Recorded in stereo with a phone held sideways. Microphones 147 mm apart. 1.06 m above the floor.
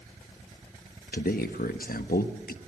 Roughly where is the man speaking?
Left.